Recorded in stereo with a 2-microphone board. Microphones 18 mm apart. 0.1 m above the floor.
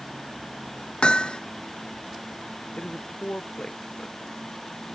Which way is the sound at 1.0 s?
60° left (ahead or behind).